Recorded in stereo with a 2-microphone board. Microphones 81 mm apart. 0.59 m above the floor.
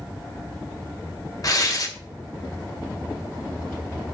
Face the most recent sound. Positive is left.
turn(degrees=45)  # may be behind; listen again after turning